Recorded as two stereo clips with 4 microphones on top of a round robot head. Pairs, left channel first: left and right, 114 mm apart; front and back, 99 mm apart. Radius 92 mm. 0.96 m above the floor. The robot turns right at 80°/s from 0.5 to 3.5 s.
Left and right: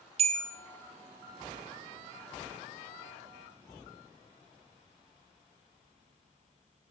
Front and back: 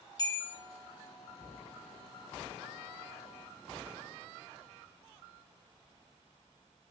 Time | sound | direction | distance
0.2 | a bell | 65° right | 0.6 m